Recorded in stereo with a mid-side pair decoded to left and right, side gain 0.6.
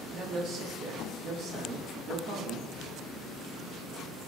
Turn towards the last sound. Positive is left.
turn(degrees=-55)